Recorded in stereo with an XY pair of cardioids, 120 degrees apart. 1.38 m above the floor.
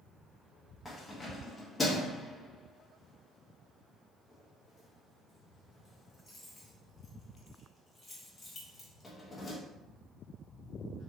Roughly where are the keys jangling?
Ahead.